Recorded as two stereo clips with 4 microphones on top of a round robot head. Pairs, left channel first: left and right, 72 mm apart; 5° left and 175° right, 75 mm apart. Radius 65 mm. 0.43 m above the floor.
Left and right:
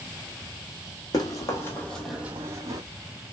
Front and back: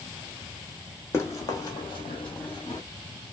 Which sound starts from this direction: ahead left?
Running footsteps, at 1.1 s.